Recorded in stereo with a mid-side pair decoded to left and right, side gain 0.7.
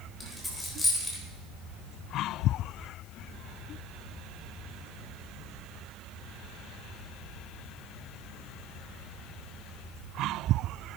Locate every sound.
0.2 s a dropped coin: 15° left, 3.5 m